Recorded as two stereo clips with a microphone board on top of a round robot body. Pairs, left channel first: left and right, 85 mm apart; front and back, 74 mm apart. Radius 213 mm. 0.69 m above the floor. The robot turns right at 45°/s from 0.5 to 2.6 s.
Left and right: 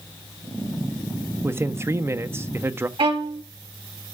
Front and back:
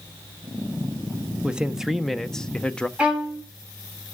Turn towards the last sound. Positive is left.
turn(degrees=-105)